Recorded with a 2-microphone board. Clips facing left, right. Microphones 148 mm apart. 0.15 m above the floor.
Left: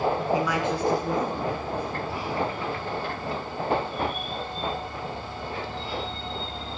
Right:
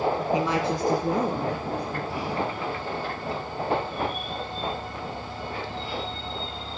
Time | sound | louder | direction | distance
0.3 | a woman speaking | even | 20° right (ahead or behind) | 1.2 m